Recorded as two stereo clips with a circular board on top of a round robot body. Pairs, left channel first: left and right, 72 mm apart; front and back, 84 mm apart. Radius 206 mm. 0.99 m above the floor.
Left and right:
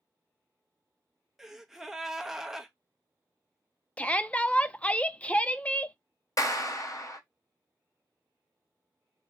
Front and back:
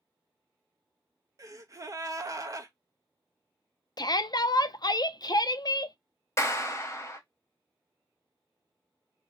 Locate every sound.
1.4 s a gasp: 175° right, 0.7 m
4.0 s a shout: 20° left, 0.6 m
6.4 s a clap: 50° left, 0.9 m